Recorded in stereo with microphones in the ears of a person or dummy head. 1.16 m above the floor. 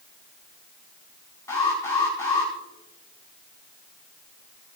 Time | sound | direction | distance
1.5 | an alarm | 15° left (ahead or behind) | 4.5 m